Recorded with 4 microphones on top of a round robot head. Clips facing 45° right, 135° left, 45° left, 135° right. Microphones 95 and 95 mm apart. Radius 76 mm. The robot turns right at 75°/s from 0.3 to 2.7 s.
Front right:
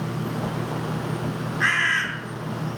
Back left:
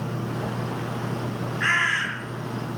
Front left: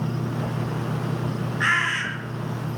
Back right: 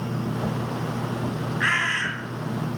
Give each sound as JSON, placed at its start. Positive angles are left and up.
{"t": 1.6, "sound": "a bird", "azimuth_deg": -25, "distance_m": 6.5}